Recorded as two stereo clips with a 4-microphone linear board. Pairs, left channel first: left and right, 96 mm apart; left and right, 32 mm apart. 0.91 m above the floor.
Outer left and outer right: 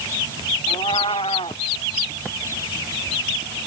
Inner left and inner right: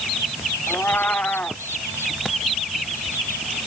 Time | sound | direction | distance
0.7 | a cat meowing | 75° left (ahead or behind) | ?